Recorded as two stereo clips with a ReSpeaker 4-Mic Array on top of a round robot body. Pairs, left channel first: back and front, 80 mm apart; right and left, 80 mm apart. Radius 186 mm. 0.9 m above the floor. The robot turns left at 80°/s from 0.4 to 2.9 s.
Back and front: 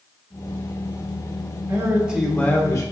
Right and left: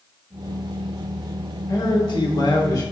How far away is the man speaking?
About 1.4 m.